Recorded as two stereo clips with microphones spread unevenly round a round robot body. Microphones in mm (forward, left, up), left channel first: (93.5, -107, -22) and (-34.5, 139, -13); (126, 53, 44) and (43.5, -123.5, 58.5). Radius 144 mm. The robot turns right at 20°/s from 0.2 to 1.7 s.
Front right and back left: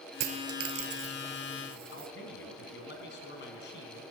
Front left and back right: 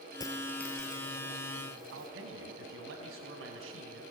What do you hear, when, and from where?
0.2 s a dropped coin: 145° left, 1.0 m; by 2.1 s 175° left, 1.0 m
1.9 s a man speaking: 115° right, 4 m